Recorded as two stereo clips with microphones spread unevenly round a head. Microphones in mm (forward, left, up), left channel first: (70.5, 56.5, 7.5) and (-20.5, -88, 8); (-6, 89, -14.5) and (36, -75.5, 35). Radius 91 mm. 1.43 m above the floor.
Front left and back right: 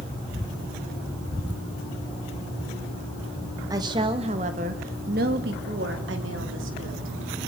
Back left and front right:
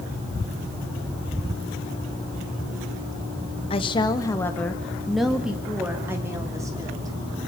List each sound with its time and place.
3.7 s a woman speaking: 165° left, 1.8 m; by 7.2 s 145° right, 4 m